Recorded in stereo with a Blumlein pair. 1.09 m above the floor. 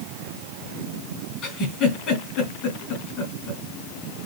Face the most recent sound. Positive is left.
turn(degrees=35)